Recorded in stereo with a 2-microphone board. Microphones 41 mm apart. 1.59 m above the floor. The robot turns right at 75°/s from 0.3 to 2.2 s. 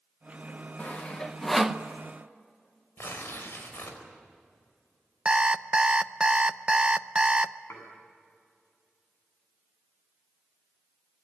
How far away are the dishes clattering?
About 8 m.